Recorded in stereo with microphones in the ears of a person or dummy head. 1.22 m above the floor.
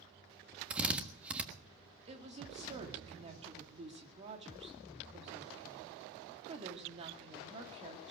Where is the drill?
10° right (ahead or behind), 1.3 m.